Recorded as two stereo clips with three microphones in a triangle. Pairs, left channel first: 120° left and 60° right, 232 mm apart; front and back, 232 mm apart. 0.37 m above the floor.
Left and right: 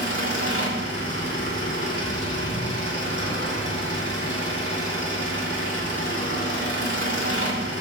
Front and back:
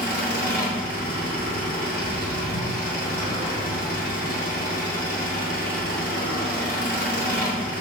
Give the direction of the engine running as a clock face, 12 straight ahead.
1 o'clock.